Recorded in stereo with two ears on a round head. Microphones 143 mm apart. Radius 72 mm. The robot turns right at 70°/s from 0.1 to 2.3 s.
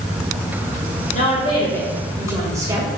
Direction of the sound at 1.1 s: 120° left.